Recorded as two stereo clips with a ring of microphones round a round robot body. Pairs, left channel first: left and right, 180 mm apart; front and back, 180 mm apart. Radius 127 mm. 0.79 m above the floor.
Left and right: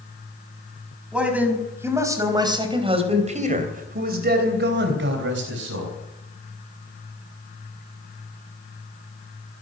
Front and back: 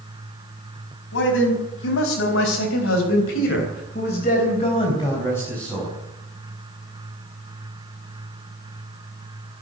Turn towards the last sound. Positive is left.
turn(degrees=-90)